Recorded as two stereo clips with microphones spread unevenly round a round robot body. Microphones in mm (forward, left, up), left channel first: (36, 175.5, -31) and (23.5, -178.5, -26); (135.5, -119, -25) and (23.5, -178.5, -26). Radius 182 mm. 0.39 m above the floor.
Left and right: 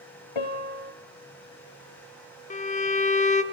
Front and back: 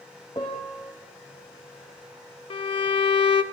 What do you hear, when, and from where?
0.3 s a piano: 105° left, 1.7 m
2.5 s a violin: 30° left, 0.6 m